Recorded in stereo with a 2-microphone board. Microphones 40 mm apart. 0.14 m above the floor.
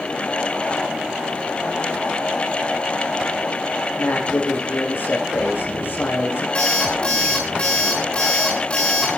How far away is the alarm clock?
About 6 m.